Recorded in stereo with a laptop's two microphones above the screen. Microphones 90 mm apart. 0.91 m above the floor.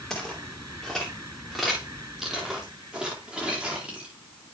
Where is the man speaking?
No man speaking in this recording.